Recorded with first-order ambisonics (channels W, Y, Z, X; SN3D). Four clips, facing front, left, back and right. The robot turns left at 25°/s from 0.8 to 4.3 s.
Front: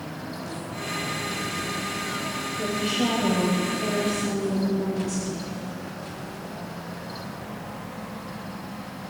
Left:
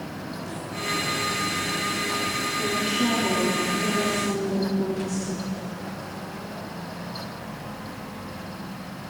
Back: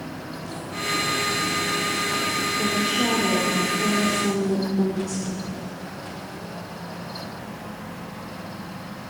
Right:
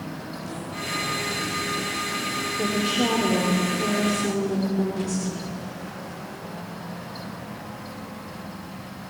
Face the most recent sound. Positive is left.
turn(degrees=-150)